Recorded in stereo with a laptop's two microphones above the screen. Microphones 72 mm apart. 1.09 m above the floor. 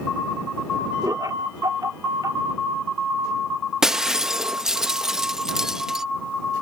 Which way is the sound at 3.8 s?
5° right (ahead or behind).